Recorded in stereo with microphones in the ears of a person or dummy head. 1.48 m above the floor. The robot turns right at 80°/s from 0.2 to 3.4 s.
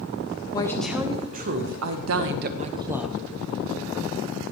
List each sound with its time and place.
0.5 s a woman speaking: 155° left, 1.1 m; by 3.2 s 5° left, 1.1 m